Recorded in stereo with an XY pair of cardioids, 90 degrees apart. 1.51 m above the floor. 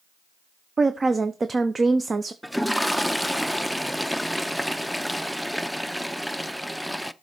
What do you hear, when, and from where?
0.8 s a woman speaking: 30° right, 0.7 m
2.4 s a toilet flushing: straight ahead, 0.5 m